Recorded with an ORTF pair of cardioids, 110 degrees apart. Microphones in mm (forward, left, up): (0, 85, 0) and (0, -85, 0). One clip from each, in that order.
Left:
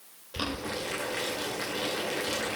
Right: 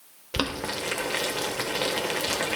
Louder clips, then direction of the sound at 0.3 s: Right 4 dB; 60° right.